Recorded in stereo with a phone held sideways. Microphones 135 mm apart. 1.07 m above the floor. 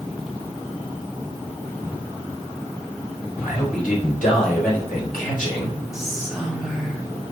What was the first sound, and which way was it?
A man speaking, 75° left (ahead or behind).